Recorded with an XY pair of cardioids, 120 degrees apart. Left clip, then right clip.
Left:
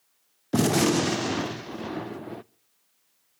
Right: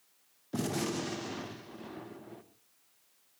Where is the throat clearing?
No throat clearing in this recording.